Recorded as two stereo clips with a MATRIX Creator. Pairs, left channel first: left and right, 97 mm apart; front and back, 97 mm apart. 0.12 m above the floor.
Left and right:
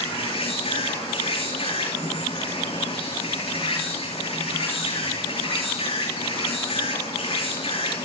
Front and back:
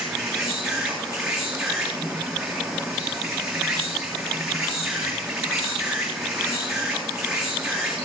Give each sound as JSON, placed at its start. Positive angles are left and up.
{"t": 0.0, "sound": "an insect", "azimuth_deg": 95, "distance_m": 8.5}